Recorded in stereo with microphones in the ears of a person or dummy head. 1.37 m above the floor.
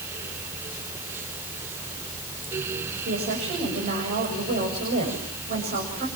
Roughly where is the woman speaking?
Right.